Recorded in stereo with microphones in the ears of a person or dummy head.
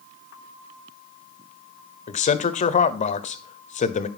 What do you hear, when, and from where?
2.1 s a man speaking: 35° left (ahead or behind), 0.7 m